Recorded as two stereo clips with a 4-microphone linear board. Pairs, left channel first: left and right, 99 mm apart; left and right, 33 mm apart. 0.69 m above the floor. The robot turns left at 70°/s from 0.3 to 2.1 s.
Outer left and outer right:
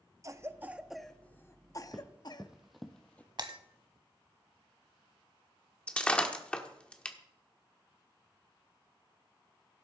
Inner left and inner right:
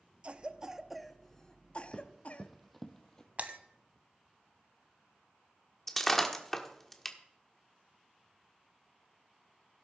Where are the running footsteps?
5° right (ahead or behind), 1.8 m; by 3.3 s 20° left (ahead or behind), 1.0 m.